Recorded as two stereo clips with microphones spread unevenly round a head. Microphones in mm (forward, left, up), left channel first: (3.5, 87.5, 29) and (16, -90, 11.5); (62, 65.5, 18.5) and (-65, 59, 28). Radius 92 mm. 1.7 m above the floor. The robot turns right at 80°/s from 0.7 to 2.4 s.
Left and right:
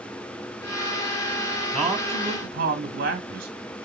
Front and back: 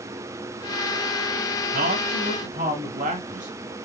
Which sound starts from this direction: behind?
A man speaking, at 1.7 s.